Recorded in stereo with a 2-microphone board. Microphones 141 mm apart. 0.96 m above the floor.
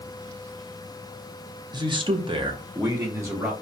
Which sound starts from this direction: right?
A man speaking, at 1.7 s.